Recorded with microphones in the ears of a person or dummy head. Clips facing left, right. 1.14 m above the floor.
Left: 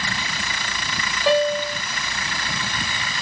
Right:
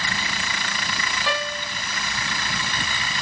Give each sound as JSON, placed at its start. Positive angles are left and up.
{"t": 1.3, "sound": "a piano", "side_deg": 40, "distance_m": 0.8}